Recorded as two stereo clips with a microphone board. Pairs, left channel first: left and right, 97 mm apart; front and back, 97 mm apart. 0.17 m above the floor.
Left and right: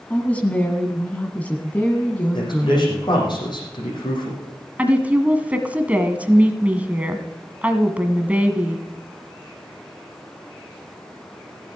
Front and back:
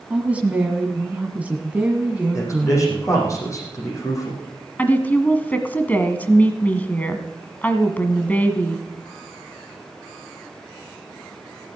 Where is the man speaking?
55° left, 6 m.